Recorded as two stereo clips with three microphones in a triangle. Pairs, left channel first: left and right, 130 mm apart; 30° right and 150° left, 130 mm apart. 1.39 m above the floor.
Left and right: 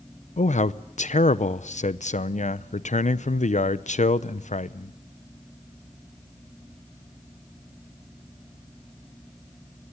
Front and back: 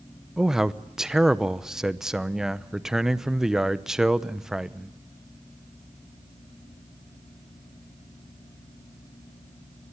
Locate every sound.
0.4 s a man speaking: 65° left, 0.7 m